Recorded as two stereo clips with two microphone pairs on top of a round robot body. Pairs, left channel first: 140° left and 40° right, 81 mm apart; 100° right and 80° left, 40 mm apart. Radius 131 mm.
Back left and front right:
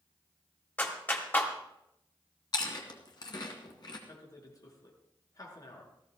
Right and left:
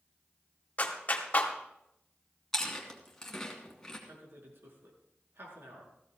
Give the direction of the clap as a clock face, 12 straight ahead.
5 o'clock.